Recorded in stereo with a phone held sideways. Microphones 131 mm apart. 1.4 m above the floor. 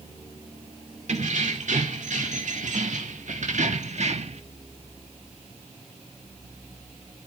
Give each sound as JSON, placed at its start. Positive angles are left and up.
{"t": 1.1, "sound": "keys jangling", "side_deg": -65, "distance_m": 2.5}